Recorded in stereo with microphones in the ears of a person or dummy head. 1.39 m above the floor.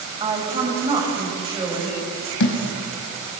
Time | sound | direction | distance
0.2 | a woman speaking | 30° right (ahead or behind) | 6 m
2.4 | a thud | 65° left (ahead or behind) | 3.5 m